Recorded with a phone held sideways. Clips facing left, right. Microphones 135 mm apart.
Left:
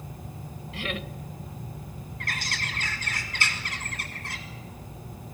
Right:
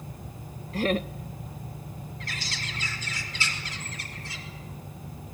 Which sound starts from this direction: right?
Laughter, at 0.7 s.